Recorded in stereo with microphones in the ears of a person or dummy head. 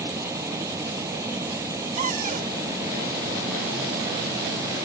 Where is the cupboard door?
45° right (ahead or behind).